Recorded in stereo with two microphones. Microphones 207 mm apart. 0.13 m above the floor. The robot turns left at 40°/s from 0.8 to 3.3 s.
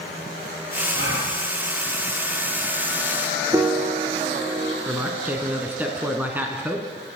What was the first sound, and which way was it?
A gasp, 65° right (ahead or behind).